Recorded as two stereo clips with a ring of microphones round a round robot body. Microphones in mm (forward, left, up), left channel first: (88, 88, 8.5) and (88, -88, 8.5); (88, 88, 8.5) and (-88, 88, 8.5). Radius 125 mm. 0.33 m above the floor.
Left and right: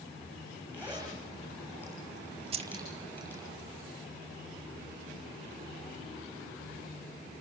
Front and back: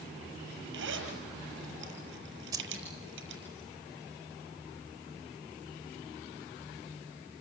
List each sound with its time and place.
0.7 s a zipper: 170° left, 6.5 m
2.5 s keys jangling: 120° right, 0.9 m